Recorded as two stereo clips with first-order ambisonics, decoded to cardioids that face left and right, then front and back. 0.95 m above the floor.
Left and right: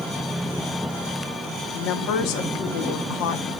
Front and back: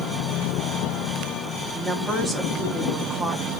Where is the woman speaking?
85° left, 1.7 m.